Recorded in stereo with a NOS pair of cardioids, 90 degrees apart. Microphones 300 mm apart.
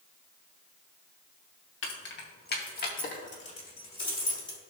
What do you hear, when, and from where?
1.8 s keys jangling: 45° left, 1.7 m; by 4.6 s 15° left, 3 m